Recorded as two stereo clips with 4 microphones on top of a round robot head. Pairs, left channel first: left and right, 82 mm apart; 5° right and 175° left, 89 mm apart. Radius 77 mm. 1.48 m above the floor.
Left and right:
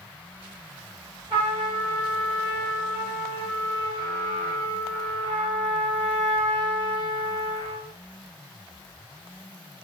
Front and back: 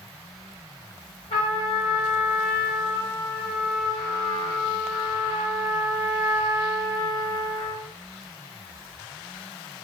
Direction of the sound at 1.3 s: 45° right.